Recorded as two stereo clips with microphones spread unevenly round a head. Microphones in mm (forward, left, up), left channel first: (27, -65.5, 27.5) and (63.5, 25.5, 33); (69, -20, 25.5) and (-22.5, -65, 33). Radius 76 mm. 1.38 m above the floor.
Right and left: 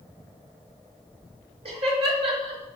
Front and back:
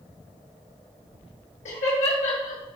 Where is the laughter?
45° left, 2.5 m.